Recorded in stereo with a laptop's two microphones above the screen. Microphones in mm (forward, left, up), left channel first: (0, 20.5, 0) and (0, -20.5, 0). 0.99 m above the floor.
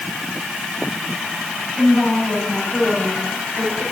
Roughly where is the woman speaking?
Centre.